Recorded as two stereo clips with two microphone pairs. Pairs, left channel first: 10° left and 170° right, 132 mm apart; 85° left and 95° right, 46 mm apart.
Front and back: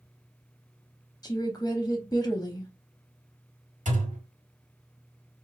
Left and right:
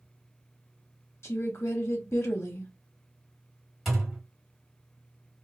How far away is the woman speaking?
About 0.5 m.